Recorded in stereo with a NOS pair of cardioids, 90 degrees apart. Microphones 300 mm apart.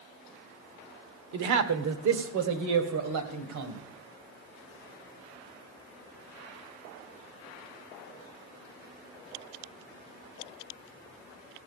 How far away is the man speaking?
About 1.3 m.